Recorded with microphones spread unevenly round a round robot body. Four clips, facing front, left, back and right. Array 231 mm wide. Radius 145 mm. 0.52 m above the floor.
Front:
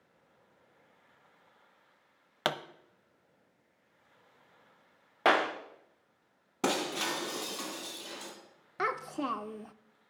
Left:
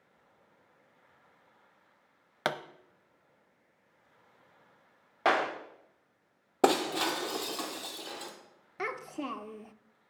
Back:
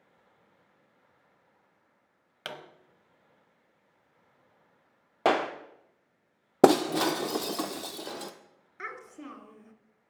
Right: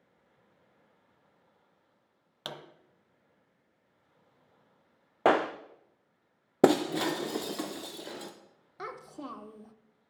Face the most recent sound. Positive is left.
turn(degrees=35)